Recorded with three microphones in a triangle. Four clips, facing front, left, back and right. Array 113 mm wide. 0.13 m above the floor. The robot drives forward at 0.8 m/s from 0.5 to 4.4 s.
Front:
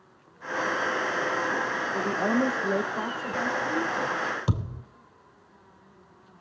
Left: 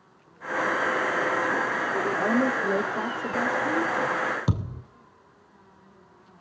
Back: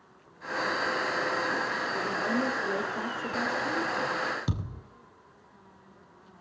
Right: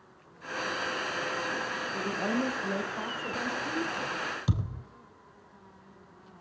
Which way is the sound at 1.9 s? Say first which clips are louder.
Left 6 dB, front 5 dB; 80° left.